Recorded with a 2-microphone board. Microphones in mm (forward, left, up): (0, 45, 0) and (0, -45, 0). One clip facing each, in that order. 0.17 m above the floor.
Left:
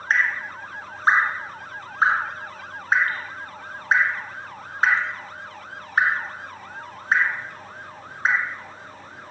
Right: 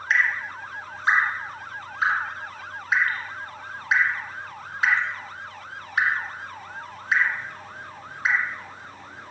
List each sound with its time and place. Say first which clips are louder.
0.1 s dripping: left 1 dB; 40° left (ahead or behind), 1.0 m